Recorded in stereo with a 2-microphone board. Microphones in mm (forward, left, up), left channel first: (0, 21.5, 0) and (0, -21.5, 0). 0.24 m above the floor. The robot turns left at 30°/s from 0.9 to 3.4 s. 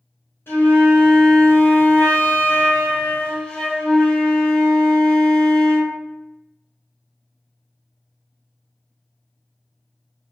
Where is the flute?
100° left, 1.5 m; by 5.9 s 25° left, 1.5 m.